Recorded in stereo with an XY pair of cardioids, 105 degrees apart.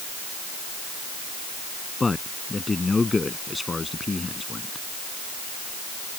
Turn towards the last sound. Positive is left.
turn(degrees=20)